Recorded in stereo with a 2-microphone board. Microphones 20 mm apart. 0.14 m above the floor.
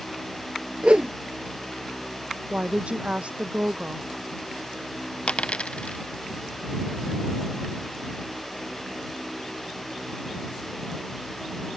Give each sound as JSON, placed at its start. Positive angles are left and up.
{"t": 0.8, "sound": "a whoosh", "side_deg": -60}
{"t": 2.5, "sound": "a woman speaking", "side_deg": -75}
{"t": 5.3, "sound": "a dropped coin", "side_deg": 60}